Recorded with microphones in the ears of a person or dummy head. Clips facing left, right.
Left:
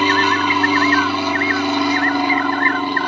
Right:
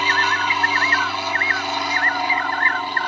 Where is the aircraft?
60° left (ahead or behind).